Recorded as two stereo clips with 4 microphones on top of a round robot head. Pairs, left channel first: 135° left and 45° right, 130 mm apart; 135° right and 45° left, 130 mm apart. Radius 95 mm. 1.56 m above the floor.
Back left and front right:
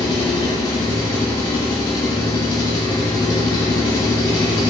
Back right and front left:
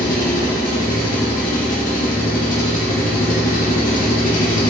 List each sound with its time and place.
0.0 s an engine running: 160° right, 0.7 m